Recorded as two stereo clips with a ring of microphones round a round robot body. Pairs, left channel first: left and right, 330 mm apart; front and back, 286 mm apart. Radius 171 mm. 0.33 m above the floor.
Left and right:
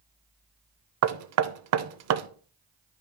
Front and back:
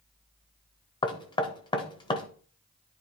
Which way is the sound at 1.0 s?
70° right.